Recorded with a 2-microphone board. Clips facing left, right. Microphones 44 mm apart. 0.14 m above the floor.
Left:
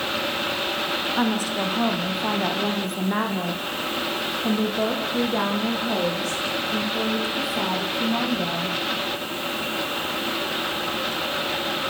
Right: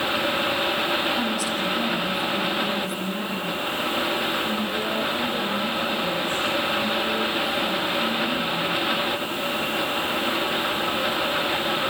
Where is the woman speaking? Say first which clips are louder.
Left 2 dB; 30° left (ahead or behind), 4.5 m; by 8.8 s 80° left, 9 m.